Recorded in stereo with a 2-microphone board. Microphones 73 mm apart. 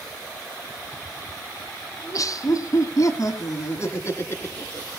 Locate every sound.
2.0 s laughter: 50° left (ahead or behind), 1.5 m; by 4.9 s 30° left (ahead or behind), 3 m